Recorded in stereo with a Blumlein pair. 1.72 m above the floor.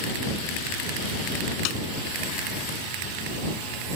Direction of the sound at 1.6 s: 40° left.